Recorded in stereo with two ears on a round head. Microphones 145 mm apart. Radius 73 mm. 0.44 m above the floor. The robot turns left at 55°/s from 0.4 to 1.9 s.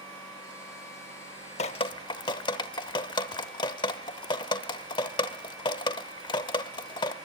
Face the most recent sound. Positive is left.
turn(degrees=25)  # may be behind; listen again after turning